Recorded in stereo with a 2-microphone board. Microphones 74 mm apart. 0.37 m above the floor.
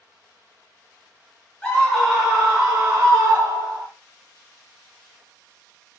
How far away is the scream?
About 1.0 m.